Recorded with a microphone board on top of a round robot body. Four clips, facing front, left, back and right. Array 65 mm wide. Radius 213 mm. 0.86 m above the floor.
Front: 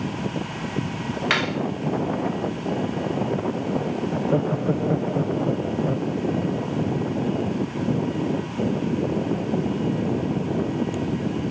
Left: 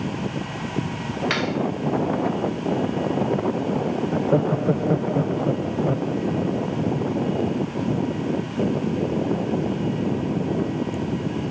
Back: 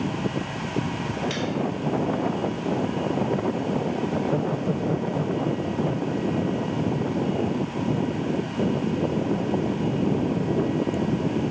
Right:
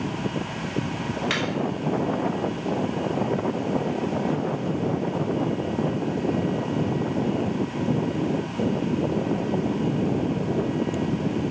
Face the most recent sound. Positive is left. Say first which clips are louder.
# left 5 dB, front 2 dB
turn(degrees=65)